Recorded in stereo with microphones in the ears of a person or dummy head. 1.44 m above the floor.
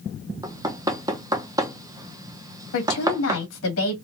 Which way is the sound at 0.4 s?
15° right (ahead or behind).